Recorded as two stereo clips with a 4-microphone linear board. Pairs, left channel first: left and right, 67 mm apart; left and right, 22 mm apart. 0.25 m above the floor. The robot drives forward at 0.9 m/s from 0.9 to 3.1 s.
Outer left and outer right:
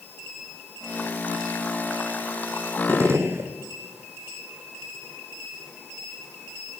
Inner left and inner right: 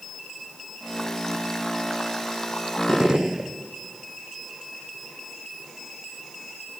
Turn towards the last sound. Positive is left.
turn(degrees=-40)  # may be behind; listen again after turning